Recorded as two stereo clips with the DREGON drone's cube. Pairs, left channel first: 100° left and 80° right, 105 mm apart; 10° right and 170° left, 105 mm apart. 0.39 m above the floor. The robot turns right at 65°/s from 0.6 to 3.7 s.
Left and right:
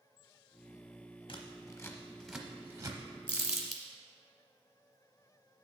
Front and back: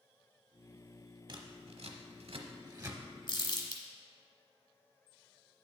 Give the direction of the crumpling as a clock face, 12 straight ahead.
12 o'clock.